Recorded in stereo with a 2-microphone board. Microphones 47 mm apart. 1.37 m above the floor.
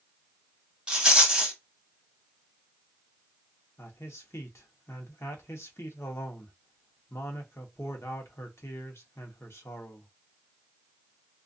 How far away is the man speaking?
About 0.8 m.